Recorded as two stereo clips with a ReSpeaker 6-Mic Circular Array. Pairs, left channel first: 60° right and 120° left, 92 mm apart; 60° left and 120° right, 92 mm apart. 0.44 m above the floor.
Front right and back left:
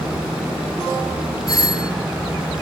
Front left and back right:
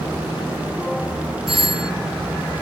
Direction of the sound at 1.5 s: 105° right.